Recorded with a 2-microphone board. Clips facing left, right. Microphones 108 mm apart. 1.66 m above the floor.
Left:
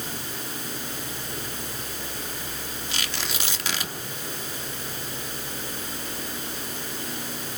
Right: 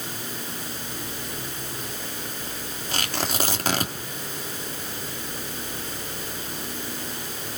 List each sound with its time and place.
2.9 s tearing paper: 45° right (ahead or behind), 2.5 m